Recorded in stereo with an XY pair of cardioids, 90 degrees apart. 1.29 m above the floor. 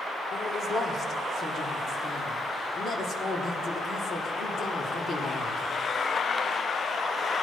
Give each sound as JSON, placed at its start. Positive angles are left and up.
{"t": 0.3, "sound": "a man speaking", "azimuth_deg": 60, "distance_m": 4.0}